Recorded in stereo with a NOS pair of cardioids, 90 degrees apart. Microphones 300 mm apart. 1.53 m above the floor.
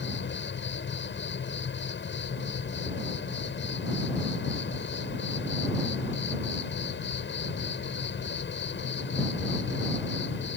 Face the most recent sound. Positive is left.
turn(degrees=40)